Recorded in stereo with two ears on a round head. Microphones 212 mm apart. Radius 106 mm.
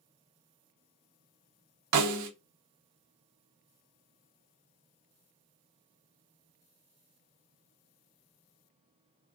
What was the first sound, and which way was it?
A snare drum, 85° right.